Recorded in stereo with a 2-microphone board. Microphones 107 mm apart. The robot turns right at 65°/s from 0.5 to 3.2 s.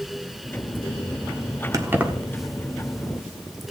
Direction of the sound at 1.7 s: 30° right (ahead or behind).